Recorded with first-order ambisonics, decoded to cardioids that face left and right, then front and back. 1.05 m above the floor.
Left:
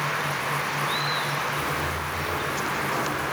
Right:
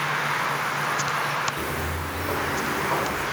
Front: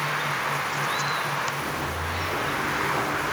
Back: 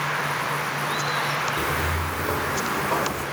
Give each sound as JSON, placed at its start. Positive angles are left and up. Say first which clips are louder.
{"t": 1.6, "sound": "footsteps", "louder": "left 2 dB, back 4 dB", "azimuth_deg": -155, "distance_m": 1.6}